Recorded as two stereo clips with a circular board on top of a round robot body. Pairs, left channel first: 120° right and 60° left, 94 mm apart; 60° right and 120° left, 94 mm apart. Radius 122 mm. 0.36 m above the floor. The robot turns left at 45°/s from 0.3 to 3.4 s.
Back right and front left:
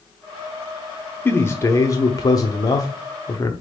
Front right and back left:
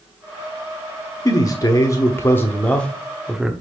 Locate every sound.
1.2 s a man speaking: 60° right, 1.1 m; by 3.5 s 160° right, 1.1 m